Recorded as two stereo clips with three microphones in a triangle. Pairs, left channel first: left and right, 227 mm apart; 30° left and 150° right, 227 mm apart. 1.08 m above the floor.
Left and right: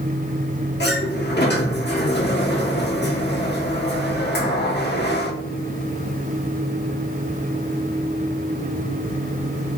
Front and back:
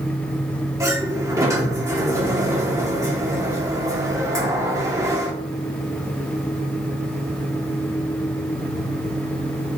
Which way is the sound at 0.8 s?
135° left.